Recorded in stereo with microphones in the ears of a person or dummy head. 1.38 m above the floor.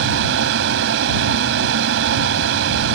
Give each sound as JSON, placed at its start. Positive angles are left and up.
{"t": 0.0, "sound": "a fan", "side_deg": -70}